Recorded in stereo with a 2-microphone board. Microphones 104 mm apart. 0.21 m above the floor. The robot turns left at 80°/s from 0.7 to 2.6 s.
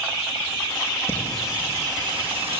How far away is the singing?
About 5.5 m.